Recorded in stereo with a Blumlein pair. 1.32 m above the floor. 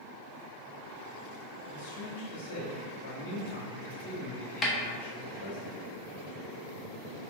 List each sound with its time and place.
1.7 s a man speaking: 55° left, 1.2 m
4.6 s a snare drum: 15° left, 0.6 m